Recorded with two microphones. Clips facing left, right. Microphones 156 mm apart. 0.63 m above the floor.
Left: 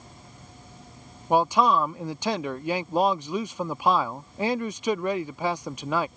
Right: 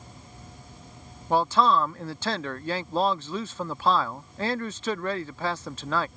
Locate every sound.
1.3 s a man speaking: 15° left (ahead or behind)